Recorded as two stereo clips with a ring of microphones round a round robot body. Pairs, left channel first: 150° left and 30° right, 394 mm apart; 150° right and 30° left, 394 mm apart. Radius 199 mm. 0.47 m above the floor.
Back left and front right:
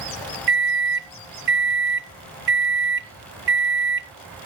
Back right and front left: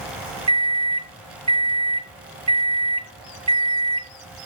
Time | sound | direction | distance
0.5 | a microwave | 30° right | 0.5 m